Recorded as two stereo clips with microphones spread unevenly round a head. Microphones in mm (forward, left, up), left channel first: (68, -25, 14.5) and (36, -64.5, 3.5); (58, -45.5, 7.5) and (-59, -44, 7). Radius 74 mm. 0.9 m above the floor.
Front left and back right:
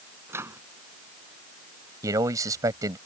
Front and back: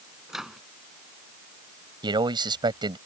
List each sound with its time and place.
0.3 s a microwave: 95° right
2.0 s a man speaking: 130° right